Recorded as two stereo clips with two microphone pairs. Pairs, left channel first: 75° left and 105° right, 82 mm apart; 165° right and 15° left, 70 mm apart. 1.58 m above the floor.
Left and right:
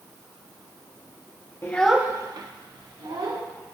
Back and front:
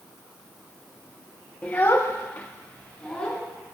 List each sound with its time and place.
1.6 s a child speaking: 130° left, 0.8 m; by 3.4 s 90° right, 2.5 m